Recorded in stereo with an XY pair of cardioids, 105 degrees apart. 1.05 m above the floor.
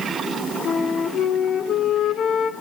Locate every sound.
0.7 s a flute: 70° left, 2 m